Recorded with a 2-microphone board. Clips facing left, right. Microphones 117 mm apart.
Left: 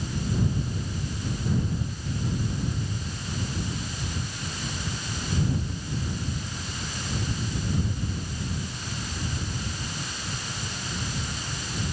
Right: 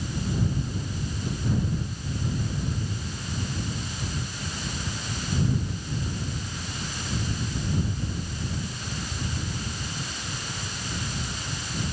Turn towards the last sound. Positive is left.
No sound to turn to.